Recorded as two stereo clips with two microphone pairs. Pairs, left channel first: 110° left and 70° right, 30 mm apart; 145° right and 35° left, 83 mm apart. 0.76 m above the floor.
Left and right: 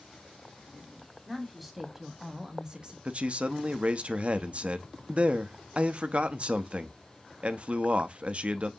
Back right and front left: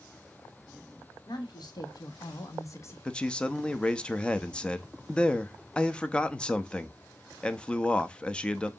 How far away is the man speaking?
About 0.7 m.